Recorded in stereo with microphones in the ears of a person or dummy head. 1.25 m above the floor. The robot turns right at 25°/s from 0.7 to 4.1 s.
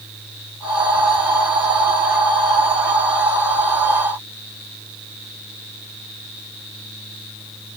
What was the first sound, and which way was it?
Only background noise.